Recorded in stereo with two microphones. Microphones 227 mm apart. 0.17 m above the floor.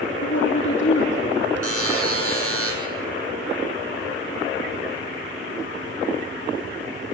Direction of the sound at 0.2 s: 60° left (ahead or behind).